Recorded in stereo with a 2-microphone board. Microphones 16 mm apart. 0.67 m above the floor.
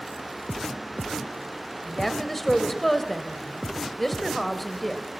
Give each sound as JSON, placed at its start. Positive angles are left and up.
{"t": 1.9, "sound": "a woman speaking", "side_deg": 10, "distance_m": 2.5}